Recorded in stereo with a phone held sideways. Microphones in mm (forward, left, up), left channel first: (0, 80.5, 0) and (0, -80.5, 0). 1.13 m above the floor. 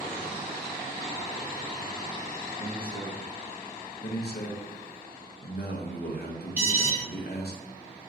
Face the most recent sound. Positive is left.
turn(degrees=-5)  # may be behind; listen again after turning